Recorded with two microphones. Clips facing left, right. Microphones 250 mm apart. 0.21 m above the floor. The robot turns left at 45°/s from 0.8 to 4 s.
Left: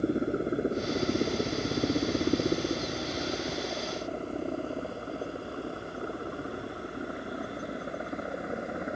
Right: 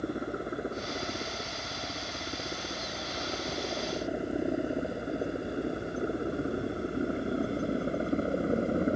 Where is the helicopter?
25° left (ahead or behind); by 9.0 s 35° right (ahead or behind).